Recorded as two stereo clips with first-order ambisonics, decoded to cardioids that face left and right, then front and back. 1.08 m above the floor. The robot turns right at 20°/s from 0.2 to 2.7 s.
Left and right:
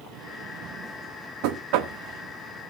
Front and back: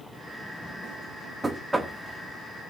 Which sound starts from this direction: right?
Knocking, at 1.4 s.